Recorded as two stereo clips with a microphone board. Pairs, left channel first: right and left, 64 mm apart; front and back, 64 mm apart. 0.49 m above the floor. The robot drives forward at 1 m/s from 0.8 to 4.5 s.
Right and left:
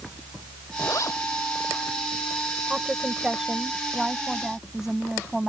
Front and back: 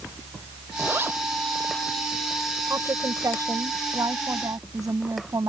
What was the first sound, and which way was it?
A zipper, 125° right.